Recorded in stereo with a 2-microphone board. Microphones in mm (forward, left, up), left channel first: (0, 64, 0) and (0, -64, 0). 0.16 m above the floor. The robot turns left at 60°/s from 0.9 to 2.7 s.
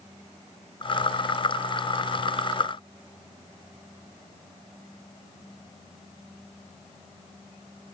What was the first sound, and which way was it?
Only background noise.